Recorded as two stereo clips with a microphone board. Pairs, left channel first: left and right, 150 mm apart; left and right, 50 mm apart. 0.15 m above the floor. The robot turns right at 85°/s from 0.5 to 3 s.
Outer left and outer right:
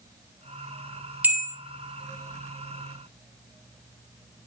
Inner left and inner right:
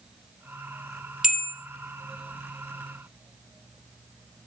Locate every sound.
1.2 s a bell: 10° right (ahead or behind), 1.2 m; by 1.5 s 15° left (ahead or behind), 1.2 m